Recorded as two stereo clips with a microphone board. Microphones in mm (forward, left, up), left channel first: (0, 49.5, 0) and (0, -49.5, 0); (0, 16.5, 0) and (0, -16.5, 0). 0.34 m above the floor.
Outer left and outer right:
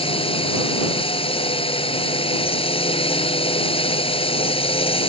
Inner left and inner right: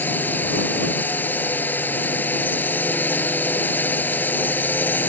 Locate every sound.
0.0 s a drone: 70° left (ahead or behind)